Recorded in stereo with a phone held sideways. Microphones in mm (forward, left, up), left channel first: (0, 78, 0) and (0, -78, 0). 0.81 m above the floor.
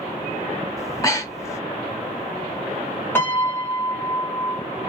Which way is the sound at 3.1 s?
15° left (ahead or behind).